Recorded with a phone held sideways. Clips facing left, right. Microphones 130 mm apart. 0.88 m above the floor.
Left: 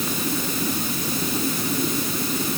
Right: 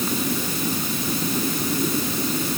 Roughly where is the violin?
I don't hear a violin.